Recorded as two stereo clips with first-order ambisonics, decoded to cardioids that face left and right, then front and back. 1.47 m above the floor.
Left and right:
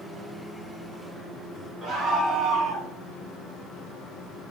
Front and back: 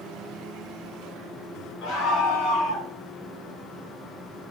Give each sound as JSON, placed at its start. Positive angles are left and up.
{"t": 1.8, "sound": "a scream", "azimuth_deg": -25, "distance_m": 2.0}